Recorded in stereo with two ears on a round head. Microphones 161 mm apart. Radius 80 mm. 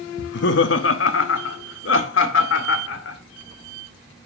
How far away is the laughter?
About 0.7 m.